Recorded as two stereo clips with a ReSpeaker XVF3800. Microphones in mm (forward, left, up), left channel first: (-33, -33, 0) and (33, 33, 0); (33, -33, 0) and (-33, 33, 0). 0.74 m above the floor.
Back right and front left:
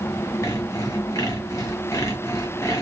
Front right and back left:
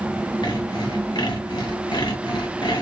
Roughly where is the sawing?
Right.